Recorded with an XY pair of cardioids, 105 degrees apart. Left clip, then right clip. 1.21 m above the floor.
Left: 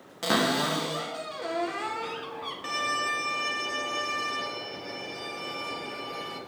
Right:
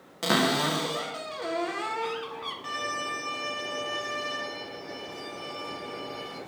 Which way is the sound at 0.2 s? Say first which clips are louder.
Right 1 dB; 10° right.